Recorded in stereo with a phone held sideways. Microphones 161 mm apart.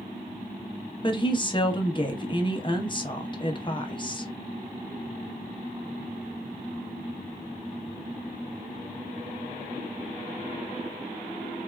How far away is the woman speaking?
About 0.7 m.